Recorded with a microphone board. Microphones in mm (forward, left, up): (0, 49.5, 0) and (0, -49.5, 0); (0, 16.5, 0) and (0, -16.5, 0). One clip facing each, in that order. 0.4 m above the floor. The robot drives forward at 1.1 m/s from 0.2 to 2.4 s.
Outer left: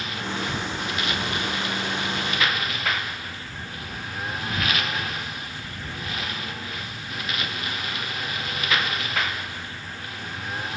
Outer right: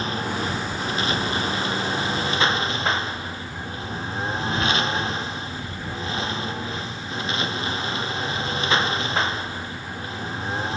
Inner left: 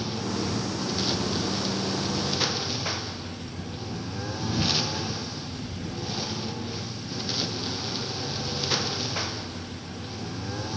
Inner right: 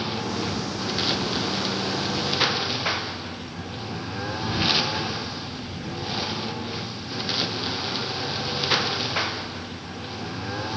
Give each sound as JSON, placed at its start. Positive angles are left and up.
{"t": 0.0, "sound": "a lawn mower", "side_deg": -35}